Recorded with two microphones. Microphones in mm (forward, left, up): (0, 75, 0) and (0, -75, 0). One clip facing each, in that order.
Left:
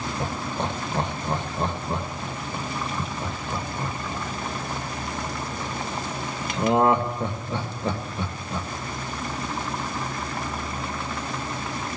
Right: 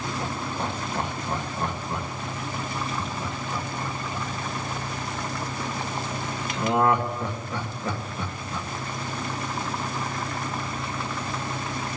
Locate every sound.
0.2 s laughter: 25° left (ahead or behind), 1.5 m